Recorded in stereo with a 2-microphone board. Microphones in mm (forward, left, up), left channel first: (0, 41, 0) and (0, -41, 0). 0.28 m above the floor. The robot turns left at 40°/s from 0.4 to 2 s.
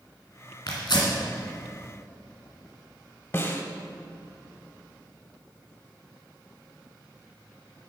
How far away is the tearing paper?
About 2 m.